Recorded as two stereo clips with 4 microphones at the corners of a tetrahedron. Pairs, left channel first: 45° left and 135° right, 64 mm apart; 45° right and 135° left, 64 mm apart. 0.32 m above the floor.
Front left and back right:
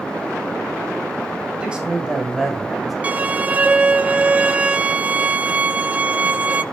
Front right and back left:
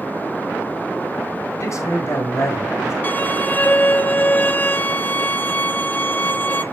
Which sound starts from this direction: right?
A violin, at 3.0 s.